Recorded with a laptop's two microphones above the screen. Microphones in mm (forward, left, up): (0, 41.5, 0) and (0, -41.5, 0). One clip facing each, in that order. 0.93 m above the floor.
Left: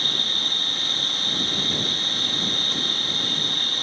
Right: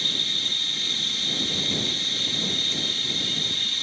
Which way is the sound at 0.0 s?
50° left (ahead or behind).